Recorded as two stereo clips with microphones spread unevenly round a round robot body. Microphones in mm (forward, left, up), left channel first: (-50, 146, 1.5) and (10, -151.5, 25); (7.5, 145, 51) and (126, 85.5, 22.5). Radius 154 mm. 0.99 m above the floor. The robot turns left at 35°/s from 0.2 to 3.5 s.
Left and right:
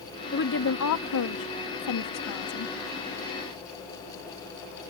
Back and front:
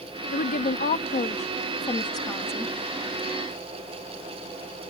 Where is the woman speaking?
155° left; by 2.8 s 70° left.